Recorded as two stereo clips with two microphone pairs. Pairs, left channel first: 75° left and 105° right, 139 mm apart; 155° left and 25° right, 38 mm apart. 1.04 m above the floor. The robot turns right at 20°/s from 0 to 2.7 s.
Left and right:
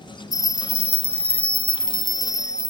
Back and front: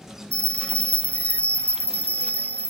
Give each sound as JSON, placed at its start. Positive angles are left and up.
{"t": 0.3, "sound": "a bell", "azimuth_deg": 100, "distance_m": 0.7}